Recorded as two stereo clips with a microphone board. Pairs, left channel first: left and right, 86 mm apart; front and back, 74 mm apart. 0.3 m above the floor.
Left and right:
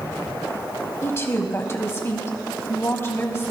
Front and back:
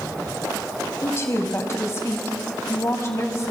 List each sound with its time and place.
1.0 s a woman speaking: 40° left, 1.6 m